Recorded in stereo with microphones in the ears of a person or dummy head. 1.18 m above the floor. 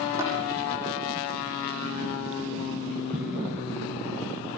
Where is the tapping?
15° right (ahead or behind), 9 m.